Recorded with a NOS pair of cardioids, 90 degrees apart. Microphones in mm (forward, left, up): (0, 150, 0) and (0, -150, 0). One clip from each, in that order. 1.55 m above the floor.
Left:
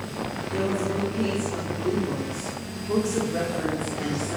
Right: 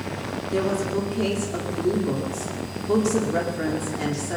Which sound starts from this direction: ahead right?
A woman speaking, at 0.5 s.